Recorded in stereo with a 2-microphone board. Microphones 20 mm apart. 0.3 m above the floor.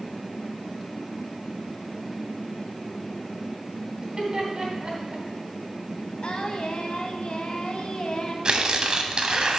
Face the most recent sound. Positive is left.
turn(degrees=-40)  # may be behind; listen again after turning